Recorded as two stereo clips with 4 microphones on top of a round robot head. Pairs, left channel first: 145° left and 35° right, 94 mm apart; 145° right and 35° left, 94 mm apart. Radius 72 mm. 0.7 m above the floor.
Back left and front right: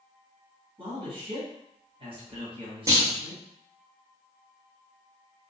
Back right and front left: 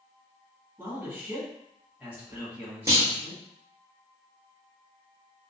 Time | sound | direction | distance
0.8 | a man speaking | 35° right | 2.0 m
2.9 | a clunk | straight ahead | 1.4 m